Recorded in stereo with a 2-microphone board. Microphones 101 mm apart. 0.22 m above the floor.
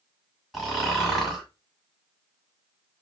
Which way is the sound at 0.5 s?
Centre (ahead or behind).